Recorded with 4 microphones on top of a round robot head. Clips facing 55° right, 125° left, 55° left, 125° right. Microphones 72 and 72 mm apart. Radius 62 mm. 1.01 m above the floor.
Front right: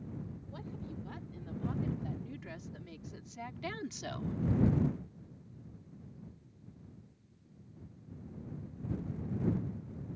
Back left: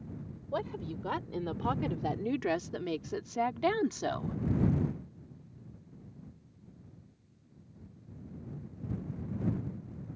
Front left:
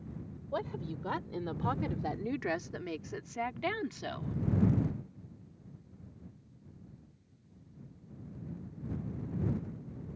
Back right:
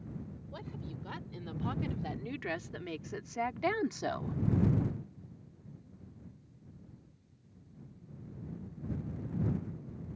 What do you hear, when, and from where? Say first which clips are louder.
0.5 s a woman speaking: back left 12 dB, front left 10 dB; 95° left; by 4.4 s 175° left